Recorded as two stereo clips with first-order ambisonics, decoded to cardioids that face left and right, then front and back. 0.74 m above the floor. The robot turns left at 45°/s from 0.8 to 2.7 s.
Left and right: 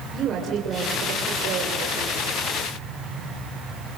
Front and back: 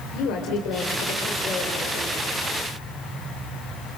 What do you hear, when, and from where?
0.1 s a woman speaking: 30° right, 3 m; by 2.2 s 90° right, 3 m